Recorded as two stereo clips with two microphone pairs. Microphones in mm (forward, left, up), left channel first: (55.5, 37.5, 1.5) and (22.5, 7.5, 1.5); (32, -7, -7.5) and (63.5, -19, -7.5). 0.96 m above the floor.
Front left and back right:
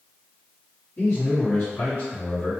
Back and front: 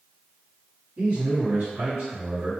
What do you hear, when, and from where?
1.0 s a man speaking: 10° right, 1.9 m